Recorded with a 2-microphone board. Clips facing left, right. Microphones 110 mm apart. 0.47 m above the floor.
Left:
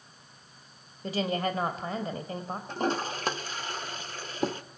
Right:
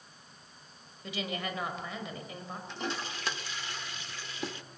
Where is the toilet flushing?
50° left (ahead or behind), 0.6 m.